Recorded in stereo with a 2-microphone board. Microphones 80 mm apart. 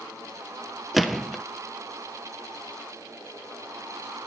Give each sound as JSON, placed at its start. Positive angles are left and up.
{"t": 0.9, "sound": "a gunshot", "side_deg": 0, "distance_m": 0.6}